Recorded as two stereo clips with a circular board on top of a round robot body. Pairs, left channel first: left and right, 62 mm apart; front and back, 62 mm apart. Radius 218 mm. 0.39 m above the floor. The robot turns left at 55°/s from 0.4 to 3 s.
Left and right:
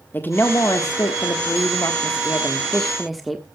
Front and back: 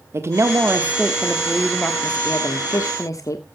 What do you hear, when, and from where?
0.1 s a woman speaking: 145° left, 1.4 m; by 3.5 s straight ahead, 1.4 m